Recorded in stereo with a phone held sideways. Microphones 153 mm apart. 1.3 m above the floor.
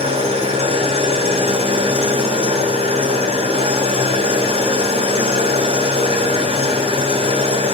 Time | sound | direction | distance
0.0 | an engine running | 40° right (ahead or behind) | 4.5 m